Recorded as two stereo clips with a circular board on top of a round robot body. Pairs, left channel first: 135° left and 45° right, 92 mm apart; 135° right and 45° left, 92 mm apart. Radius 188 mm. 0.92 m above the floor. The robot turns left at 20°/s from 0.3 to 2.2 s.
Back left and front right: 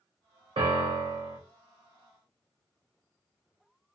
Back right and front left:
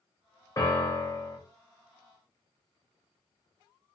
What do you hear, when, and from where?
0.6 s a piano: 80° right, 0.6 m; by 1.4 s 95° right, 0.6 m